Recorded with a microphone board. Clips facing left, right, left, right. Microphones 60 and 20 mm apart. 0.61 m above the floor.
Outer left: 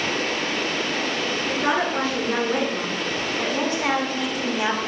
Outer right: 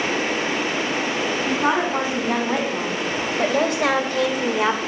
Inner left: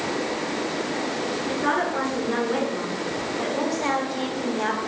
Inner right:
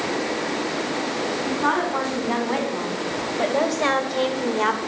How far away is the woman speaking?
About 5 m.